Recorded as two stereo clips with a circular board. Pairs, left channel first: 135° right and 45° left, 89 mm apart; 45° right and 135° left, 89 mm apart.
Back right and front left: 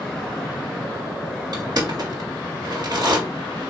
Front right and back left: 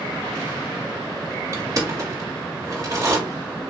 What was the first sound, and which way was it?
Crushing, 85° left.